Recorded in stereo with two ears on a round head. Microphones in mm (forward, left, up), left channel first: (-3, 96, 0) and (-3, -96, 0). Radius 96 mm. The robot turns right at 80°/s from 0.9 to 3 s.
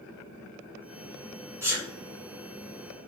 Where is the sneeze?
15° right (ahead or behind), 1.1 m; by 1.9 s 5° right (ahead or behind), 1.1 m.